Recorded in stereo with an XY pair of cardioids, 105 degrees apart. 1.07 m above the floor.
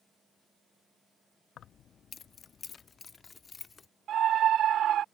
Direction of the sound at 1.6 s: 65° left.